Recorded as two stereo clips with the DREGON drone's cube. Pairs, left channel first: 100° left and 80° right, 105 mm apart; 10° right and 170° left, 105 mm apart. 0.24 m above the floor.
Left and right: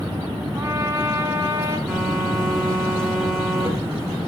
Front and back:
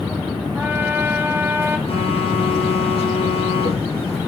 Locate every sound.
0.6 s a trumpet: 130° right, 1.7 m
1.9 s a phone buzzing: 15° left, 7 m